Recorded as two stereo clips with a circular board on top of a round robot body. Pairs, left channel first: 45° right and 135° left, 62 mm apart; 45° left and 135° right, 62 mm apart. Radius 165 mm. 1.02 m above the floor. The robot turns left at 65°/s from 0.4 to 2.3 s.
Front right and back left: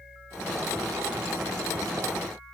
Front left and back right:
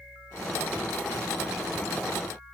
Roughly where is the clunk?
I don't hear a clunk.